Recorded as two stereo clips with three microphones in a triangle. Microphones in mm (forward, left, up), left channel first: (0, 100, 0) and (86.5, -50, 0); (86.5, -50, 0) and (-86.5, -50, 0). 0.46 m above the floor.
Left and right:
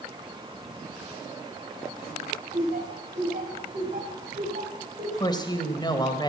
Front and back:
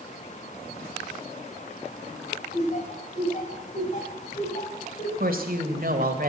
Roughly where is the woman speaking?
Behind.